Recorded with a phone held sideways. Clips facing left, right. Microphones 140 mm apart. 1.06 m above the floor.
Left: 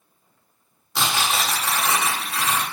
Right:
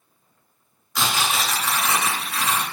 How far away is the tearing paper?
About 1.4 m.